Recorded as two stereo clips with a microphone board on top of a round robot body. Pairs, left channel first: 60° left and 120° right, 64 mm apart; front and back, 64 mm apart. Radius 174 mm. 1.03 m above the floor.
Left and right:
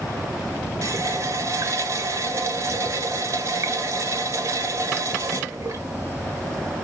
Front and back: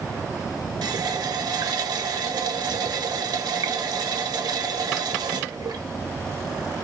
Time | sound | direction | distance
0.8 | a running tap | 160° right | 0.7 m